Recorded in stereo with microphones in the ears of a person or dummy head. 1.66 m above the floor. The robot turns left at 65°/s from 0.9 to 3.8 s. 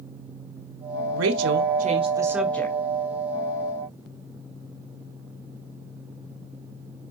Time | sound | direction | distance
1.1 | a woman speaking | 90° right | 1.3 m